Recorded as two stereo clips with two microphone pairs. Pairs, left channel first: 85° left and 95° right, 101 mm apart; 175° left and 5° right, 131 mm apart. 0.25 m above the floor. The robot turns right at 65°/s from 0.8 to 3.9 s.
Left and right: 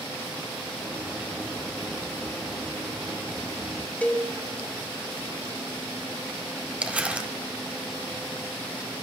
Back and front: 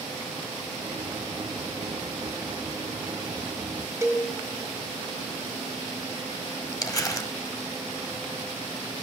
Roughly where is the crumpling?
Behind.